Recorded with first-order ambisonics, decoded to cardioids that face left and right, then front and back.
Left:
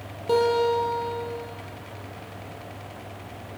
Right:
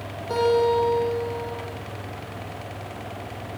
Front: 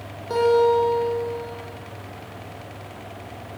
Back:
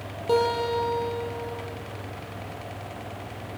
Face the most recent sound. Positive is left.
turn(degrees=140)